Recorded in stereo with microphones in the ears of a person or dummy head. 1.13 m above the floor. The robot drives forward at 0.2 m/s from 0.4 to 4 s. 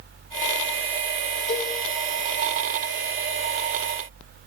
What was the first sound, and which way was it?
A cowbell, 35° left (ahead or behind).